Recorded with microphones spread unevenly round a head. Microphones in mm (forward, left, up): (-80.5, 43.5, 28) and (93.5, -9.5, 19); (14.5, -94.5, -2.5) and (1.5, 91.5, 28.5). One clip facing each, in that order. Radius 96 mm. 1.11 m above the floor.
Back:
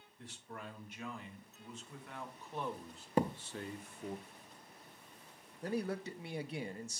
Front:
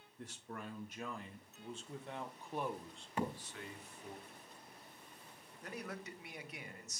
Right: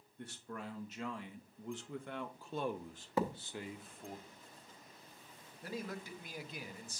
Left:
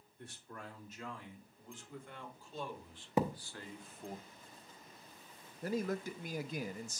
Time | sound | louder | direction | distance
0.2 | a man speaking | front 1 dB, right 4 dB | 65° right | 1.8 m
3.2 | a thud | back 6 dB, left 2 dB | 140° left | 0.6 m
5.6 | a man speaking | back 9 dB, left 7 dB | 120° left | 0.5 m